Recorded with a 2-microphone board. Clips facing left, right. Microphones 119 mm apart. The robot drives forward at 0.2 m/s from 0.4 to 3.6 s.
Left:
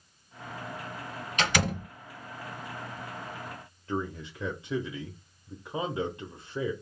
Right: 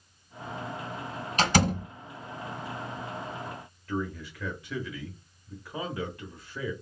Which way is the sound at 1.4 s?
40° right (ahead or behind).